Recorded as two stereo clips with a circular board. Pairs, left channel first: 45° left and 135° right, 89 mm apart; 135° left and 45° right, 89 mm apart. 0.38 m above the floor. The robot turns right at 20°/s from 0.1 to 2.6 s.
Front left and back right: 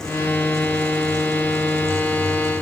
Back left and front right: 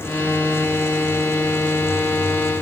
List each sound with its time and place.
Only background noise.